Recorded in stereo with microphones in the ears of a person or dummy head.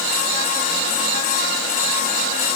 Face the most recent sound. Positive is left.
No sound to turn to.